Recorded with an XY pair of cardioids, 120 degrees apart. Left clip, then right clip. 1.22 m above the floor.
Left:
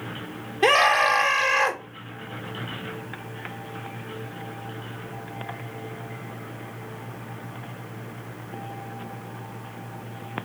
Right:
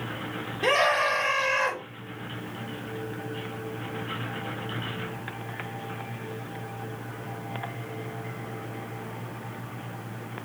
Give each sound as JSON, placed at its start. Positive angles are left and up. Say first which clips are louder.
{"t": 0.6, "sound": "a scream", "louder": "left 5 dB", "azimuth_deg": 60, "distance_m": 1.1}